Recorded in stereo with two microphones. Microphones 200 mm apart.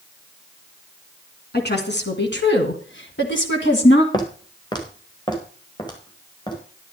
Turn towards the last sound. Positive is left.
turn(degrees=20)  # may be behind; listen again after turning